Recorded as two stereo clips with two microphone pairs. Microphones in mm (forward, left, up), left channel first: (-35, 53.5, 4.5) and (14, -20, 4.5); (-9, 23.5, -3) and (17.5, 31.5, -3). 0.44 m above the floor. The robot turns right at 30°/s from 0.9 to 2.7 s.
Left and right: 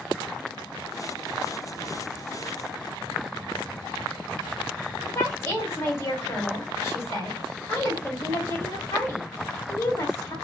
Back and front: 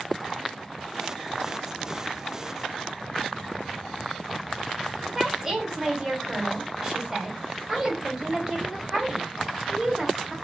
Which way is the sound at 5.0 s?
85° left.